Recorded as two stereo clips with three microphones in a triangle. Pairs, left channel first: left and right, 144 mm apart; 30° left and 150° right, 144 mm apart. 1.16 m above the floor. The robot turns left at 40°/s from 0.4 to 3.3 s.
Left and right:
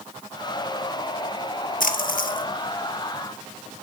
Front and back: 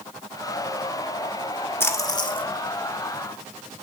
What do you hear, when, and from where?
1.8 s a splash: 105° left, 1.1 m; by 2.4 s 75° left, 1.1 m